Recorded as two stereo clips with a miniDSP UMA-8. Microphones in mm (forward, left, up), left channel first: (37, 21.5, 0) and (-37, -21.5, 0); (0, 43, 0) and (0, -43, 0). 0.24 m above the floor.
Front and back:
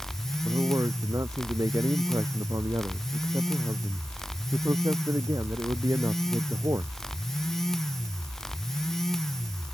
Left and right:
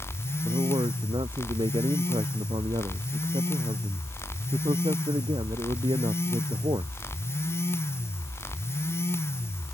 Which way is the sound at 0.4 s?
105° right.